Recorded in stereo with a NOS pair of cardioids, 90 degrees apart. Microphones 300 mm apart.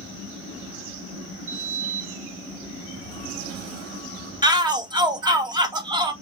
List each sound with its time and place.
1.5 s a sliding door: 55° right, 2 m
4.4 s a shout: 15° right, 1.1 m